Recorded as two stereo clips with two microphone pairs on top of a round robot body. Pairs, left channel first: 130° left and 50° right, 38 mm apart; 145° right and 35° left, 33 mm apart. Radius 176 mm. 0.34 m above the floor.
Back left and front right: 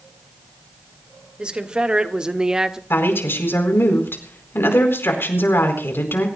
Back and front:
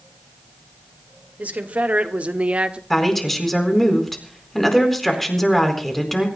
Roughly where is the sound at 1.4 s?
Ahead.